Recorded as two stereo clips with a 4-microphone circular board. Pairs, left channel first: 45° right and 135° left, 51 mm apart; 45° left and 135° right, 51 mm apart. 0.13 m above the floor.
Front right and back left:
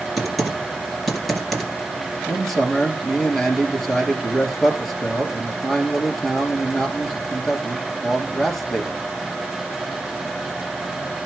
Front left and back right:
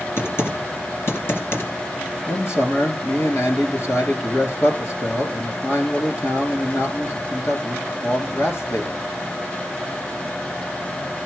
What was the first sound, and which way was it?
Typing on a keyboard, 40° left.